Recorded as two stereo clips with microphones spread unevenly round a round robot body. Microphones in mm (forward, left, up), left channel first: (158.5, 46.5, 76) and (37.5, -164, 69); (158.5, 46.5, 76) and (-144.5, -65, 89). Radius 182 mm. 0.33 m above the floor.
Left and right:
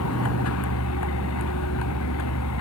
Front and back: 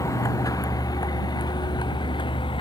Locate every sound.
0.0 s a vehicle: 100° left; by 2.6 s 95° left